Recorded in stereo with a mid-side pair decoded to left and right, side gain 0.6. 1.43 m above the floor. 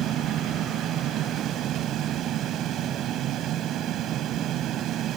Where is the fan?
55° right.